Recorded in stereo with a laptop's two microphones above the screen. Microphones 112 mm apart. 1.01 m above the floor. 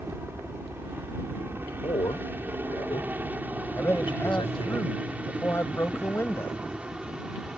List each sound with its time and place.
0.0 s a helicopter: 20° right (ahead or behind); by 7.6 s 10° right (ahead or behind)
1.8 s a man speaking: 50° left (ahead or behind)
3.8 s a man speaking: 20° left (ahead or behind)